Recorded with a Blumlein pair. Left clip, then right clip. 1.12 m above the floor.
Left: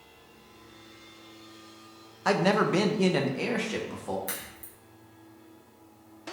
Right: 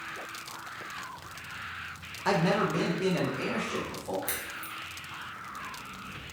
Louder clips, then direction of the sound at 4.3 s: Right 4 dB; 10° right.